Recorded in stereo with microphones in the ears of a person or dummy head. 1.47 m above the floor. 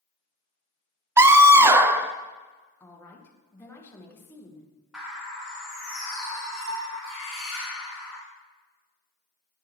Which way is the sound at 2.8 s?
10° left (ahead or behind).